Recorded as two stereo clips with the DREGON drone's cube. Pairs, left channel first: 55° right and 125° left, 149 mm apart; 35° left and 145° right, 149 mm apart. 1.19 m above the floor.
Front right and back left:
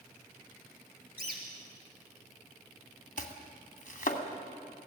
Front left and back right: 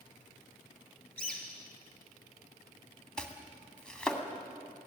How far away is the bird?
About 3 m.